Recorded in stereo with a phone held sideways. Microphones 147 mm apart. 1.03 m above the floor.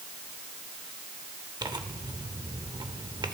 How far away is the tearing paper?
About 0.7 m.